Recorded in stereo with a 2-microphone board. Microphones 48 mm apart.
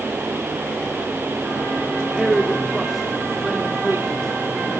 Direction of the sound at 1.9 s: 20° right (ahead or behind).